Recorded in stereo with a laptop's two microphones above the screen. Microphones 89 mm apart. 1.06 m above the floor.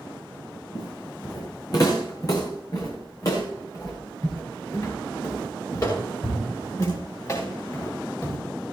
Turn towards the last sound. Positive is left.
turn(degrees=35)  # may be behind; listen again after turning